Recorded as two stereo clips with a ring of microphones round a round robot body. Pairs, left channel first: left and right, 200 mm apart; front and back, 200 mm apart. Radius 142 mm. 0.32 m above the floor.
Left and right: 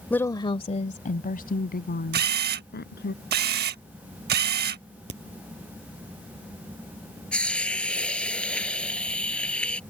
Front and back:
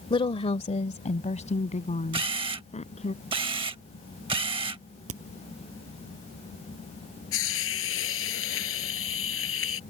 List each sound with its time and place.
0.1 s a woman speaking: 15° left; by 3.1 s 55° left
2.1 s a camera shutter: 115° right
5.1 s a crack: 145° right
7.3 s a hiss: 5° left